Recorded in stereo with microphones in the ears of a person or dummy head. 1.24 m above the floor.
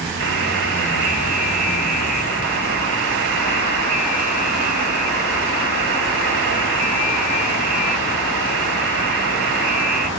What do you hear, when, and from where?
0.2 s a buzzer: 75° right (ahead or behind), 3.5 m